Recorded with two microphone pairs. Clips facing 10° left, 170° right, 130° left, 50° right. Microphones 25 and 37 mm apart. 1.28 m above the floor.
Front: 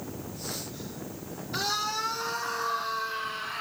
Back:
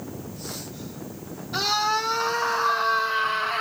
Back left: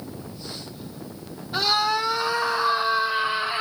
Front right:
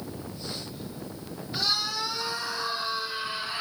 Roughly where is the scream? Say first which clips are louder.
Back 7 dB, back left 7 dB; behind left.